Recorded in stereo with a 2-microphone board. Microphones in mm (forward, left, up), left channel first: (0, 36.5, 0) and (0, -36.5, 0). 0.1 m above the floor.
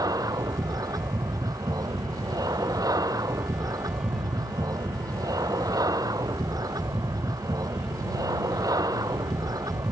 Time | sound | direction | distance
0.0 | an aircraft | 55° right (ahead or behind) | ?